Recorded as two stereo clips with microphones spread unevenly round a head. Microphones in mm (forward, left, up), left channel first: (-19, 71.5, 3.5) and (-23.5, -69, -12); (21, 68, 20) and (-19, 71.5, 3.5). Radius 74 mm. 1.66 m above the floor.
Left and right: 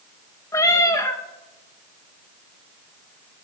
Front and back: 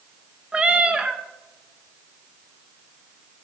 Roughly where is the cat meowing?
Left.